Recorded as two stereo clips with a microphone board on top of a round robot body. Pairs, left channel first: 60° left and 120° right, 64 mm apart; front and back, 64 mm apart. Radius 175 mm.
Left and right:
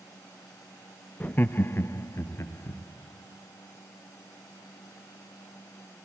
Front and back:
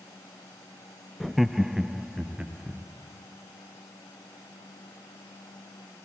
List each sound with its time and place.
1.2 s laughter: 90° left, 0.6 m; by 2.8 s 100° left, 1.3 m